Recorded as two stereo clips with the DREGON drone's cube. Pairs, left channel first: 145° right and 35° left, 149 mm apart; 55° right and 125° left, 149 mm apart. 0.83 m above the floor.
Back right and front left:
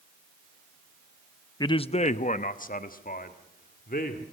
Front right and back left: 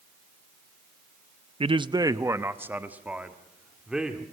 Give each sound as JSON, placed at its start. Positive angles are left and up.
{"t": 1.6, "sound": "a man speaking", "azimuth_deg": 160, "distance_m": 0.5}